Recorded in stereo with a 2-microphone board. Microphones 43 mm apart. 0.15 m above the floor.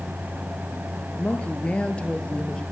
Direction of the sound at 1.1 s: 35° left (ahead or behind).